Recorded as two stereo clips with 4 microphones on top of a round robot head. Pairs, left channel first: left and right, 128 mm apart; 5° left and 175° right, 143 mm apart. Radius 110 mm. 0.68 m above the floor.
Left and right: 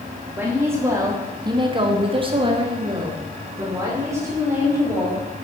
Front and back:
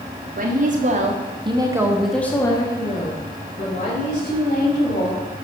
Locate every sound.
0.4 s a woman speaking: 165° right, 2 m; by 5.2 s 20° right, 4 m